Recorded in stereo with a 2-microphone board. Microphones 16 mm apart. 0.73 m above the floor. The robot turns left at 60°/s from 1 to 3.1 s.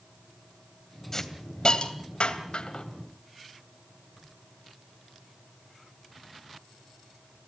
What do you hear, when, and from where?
1.1 s a hiss: 25° left (ahead or behind), 2.5 m; by 2.9 s 55° left (ahead or behind), 2.5 m